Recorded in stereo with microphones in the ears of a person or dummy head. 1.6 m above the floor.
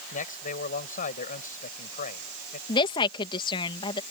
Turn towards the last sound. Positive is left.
turn(degrees=25)  # may be behind; listen again after turning